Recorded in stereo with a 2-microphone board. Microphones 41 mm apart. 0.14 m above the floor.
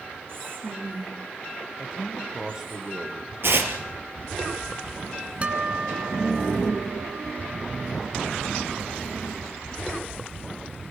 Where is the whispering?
60° right (ahead or behind), 4.5 m.